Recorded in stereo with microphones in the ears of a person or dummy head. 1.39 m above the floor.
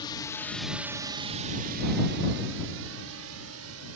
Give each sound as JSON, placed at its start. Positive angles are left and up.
{"t": 0.0, "sound": "a drone", "side_deg": 25}